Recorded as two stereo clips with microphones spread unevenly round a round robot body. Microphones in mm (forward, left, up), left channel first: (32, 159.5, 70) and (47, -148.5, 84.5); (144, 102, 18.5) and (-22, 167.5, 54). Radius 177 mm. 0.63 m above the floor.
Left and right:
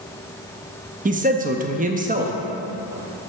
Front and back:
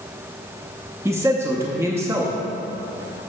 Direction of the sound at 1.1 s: 115° right.